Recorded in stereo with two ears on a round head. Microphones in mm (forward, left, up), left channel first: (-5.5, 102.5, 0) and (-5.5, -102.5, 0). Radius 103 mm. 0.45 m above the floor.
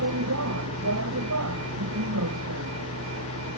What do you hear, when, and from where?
0.0 s a vehicle: 70° right (ahead or behind)